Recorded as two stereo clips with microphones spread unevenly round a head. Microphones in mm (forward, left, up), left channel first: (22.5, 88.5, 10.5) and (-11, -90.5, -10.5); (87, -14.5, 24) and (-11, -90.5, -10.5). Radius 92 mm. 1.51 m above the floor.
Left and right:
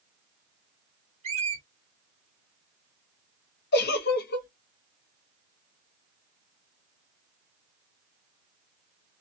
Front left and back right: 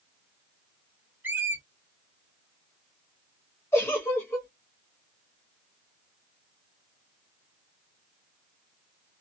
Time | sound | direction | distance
1.2 | a squeak | 55° right | 0.9 m
3.7 | a giggle | 105° left | 0.5 m